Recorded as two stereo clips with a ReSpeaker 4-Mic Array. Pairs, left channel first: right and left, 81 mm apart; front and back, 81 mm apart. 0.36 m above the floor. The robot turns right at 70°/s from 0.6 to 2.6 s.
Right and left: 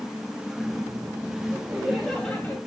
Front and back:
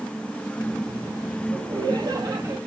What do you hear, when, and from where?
1.5 s laughter: 145° left, 2.5 m; by 2.6 s 145° right, 2.5 m